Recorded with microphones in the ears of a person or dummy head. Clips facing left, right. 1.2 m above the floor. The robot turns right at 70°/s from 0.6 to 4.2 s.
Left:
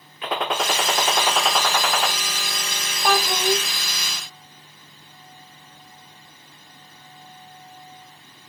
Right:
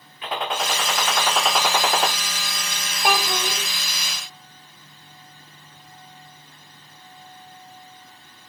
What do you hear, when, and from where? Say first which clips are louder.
0.2 s a gunshot: left 2 dB; 115° left, 1.0 m; by 2.1 s 140° right, 1.0 m
3.0 s a child speaking: left 3 dB; 10° right, 2.5 m; by 3.6 s 30° left, 2.5 m